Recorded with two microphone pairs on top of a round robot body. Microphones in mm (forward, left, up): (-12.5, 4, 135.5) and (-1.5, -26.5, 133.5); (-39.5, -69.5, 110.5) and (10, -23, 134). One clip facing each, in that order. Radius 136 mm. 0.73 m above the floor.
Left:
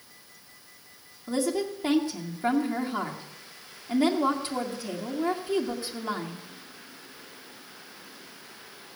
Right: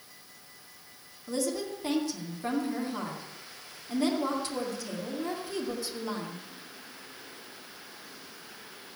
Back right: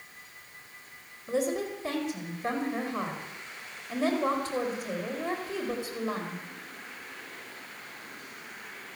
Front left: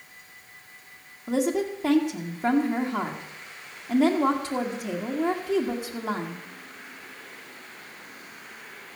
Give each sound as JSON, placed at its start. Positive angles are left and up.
{"t": 1.3, "sound": "a woman speaking", "azimuth_deg": 50, "distance_m": 2.0}